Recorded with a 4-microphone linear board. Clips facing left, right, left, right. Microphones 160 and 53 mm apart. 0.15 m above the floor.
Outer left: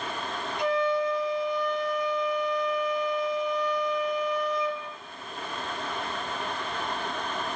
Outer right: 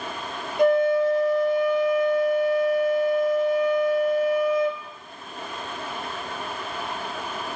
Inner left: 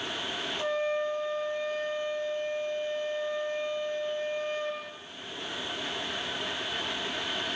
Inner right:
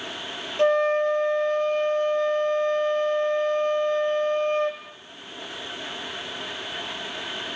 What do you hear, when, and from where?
0.6 s a flute: 55° right (ahead or behind), 0.7 m